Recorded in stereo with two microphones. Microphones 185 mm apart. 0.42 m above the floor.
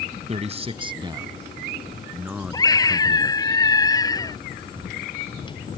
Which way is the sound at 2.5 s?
20° left (ahead or behind).